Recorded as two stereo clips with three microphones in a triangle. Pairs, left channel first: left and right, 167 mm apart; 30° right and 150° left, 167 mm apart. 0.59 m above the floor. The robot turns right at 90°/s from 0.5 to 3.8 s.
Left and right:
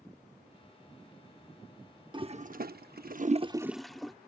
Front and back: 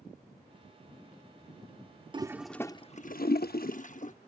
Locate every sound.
2.1 s a toilet flushing: 150° right; by 4.1 s straight ahead